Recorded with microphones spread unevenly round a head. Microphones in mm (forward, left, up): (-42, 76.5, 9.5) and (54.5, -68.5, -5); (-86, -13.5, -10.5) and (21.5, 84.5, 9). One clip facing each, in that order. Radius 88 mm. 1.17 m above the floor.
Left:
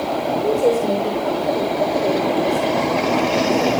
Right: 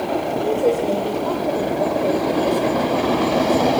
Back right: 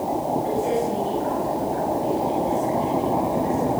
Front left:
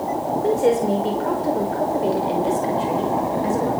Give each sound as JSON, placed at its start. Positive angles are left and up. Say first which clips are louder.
{"t": 0.4, "sound": "a woman speaking", "louder": "left 2 dB, front left 5 dB", "azimuth_deg": 50, "distance_m": 5.0}